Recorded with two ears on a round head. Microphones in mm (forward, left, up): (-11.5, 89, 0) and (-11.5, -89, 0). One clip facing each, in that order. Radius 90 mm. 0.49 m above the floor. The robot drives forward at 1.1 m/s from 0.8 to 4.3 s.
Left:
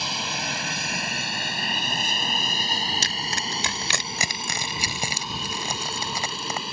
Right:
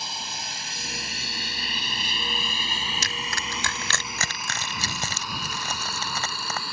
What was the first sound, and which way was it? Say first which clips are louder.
An aircraft: left 6 dB; 55° left (ahead or behind).